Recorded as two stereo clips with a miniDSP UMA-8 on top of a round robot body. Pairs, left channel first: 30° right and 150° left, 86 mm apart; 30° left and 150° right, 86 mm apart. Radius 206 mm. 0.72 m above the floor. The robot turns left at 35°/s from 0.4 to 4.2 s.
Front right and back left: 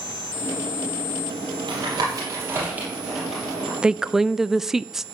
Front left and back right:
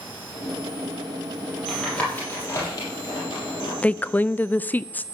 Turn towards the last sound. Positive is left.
turn(degrees=70)